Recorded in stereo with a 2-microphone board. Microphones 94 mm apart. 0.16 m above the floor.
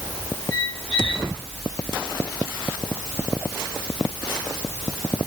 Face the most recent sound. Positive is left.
turn(degrees=55)  # may be behind; listen again after turning